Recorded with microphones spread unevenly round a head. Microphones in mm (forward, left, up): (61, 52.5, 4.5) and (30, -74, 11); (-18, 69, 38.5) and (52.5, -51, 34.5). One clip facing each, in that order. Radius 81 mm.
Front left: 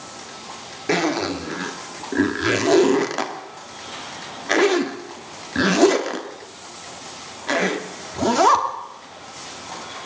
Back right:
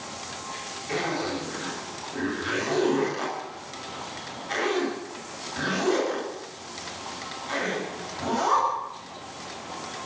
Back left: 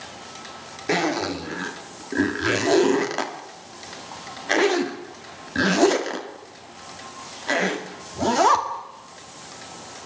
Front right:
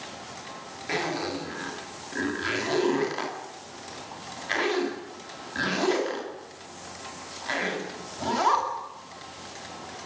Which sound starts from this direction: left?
A zipper, at 0.9 s.